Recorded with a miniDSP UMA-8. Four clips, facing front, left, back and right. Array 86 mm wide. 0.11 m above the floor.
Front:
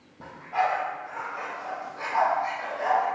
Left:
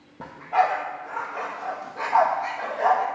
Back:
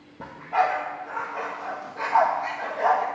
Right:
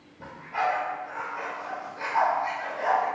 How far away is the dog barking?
About 1.5 m.